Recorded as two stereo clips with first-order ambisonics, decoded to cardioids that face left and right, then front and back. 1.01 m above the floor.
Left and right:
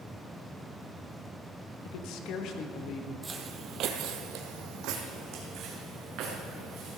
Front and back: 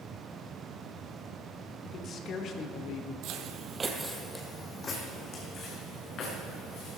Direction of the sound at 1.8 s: 65° left.